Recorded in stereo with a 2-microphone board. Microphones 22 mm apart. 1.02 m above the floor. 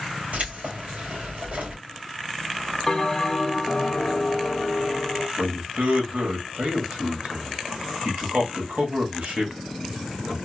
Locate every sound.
0.3 s keys jangling: 90° right, 2.5 m
2.9 s a bell: 10° left (ahead or behind), 0.6 m
5.4 s a man speaking: 70° right (ahead or behind), 1.7 m